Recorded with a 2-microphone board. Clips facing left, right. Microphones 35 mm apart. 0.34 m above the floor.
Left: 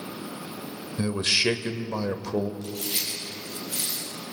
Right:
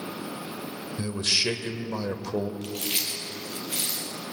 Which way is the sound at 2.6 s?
75° right (ahead or behind).